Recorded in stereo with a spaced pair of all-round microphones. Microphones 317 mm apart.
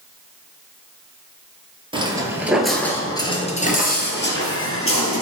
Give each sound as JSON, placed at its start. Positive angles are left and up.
{"t": 1.9, "sound": "footsteps", "side_deg": -15, "distance_m": 1.9}